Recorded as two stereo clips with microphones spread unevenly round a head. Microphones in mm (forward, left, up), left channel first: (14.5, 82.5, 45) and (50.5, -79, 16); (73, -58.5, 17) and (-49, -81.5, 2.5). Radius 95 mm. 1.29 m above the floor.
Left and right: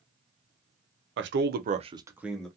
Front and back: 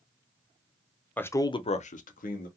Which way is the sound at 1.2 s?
70° right.